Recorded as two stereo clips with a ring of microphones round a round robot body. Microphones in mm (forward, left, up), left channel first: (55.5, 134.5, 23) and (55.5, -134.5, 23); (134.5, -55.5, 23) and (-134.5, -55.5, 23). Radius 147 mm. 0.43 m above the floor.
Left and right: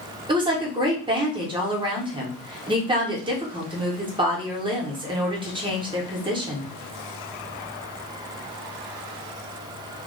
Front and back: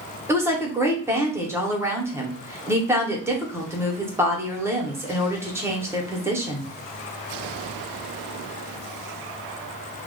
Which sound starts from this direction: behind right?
A woman speaking, at 0.3 s.